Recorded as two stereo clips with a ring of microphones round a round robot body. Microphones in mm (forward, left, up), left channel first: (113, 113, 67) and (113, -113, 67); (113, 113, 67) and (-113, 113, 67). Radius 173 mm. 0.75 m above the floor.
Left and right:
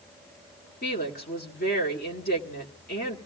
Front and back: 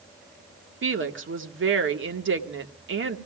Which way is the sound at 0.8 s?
150° left.